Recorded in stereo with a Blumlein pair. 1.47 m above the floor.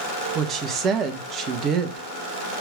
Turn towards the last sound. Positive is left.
turn(degrees=-30)